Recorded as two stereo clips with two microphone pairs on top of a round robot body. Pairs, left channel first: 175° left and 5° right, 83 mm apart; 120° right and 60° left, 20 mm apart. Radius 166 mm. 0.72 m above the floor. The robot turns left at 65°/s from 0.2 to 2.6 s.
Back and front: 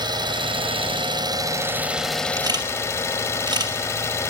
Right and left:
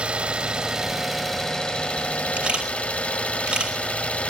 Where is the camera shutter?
45° left, 5 m; by 3.7 s 30° left, 5 m.